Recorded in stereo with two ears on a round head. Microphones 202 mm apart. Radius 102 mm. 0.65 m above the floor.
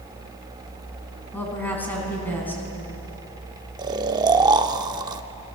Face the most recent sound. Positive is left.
turn(degrees=-15)  # may be behind; listen again after turning